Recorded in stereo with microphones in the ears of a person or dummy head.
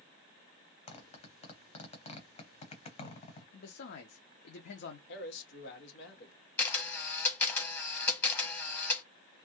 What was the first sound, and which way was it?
A zipper, 30° left (ahead or behind).